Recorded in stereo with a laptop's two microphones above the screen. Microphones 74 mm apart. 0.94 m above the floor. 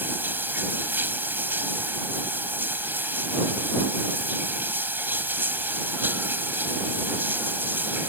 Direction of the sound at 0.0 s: 25° right (ahead or behind).